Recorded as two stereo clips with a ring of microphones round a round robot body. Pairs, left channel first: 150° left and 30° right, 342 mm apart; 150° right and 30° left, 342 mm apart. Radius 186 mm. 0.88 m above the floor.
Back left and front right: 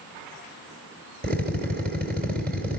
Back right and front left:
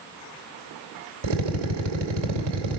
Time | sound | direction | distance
1.2 | a drill | 35° left | 2.5 m